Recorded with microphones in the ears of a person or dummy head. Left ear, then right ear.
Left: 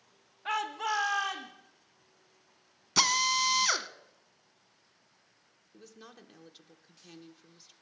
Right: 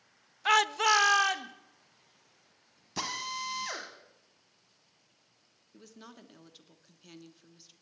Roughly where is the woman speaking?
Centre.